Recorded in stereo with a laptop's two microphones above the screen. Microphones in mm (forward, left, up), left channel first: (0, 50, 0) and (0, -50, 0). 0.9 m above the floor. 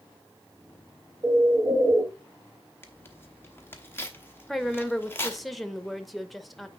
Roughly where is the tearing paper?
Left.